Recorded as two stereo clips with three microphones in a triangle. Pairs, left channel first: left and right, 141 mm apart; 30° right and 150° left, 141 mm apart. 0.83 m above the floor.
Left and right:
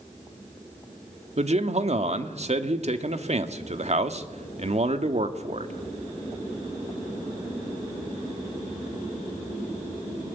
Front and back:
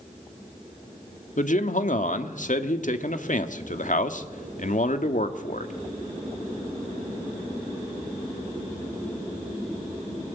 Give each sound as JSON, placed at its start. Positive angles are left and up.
{"t": 1.4, "sound": "a man speaking", "azimuth_deg": -50, "distance_m": 1.6}